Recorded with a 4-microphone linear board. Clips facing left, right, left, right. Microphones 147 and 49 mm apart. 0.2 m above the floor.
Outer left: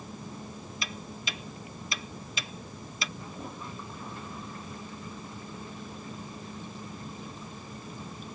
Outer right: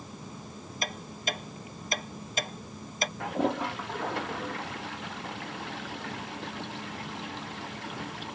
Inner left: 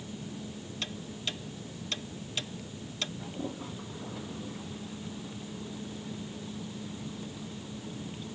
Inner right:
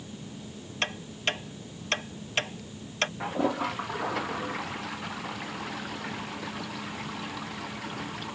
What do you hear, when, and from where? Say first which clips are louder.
0.8 s ticking: outer right 6 dB, inner right 8 dB; 50° right (ahead or behind)
3.2 s a toilet flushing: outer right 12 dB, inner right 10 dB; 85° right